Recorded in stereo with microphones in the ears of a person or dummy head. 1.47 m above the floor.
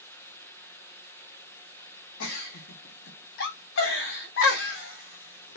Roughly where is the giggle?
Left.